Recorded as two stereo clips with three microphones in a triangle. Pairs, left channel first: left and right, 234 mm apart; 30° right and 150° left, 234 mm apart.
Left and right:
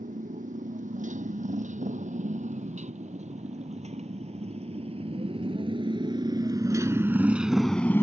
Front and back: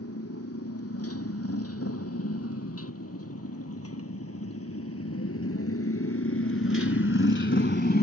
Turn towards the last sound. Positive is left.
turn(degrees=10)